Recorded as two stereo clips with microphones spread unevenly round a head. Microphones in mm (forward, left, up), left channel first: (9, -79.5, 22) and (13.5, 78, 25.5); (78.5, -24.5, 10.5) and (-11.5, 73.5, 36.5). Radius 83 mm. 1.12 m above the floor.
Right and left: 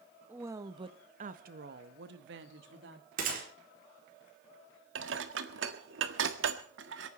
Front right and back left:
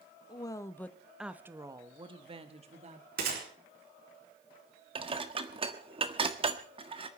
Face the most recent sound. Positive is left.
turn(degrees=85)